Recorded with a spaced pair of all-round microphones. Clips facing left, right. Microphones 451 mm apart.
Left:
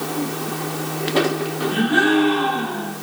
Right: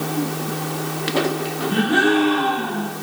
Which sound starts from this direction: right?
A gasp, at 1.7 s.